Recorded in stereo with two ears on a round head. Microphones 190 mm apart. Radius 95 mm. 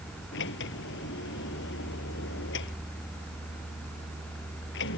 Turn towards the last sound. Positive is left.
turn(degrees=60)  # may be behind; listen again after turning